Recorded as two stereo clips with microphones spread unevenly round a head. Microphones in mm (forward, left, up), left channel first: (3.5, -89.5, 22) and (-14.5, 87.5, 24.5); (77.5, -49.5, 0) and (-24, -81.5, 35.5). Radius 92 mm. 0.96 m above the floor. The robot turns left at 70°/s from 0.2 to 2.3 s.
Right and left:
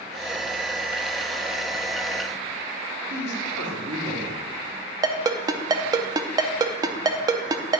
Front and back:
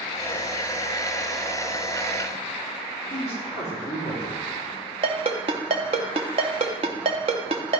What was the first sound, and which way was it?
A man speaking, 80° left.